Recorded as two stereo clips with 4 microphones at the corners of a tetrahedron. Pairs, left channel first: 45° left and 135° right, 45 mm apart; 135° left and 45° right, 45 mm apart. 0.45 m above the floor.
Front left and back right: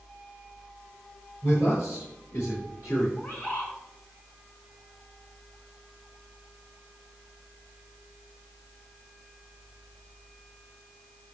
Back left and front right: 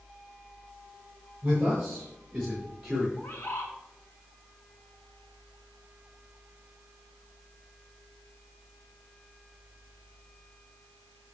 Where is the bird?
90° left, 3.5 m.